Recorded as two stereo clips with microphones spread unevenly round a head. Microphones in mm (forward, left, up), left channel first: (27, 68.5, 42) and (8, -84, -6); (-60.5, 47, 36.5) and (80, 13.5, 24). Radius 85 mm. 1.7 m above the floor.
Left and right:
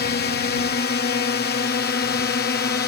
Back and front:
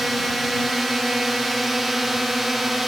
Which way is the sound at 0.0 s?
75° left.